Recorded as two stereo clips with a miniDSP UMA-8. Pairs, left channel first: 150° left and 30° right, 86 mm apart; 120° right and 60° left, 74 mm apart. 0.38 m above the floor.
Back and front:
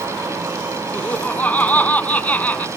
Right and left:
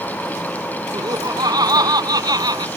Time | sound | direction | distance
0.9 | laughter | 80° left | ?